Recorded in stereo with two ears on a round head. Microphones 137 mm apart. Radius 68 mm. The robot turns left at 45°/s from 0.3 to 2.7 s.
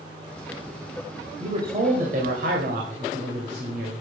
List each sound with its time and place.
1.4 s a man speaking: 40° right, 2.5 m; by 3.9 s 100° right, 2.5 m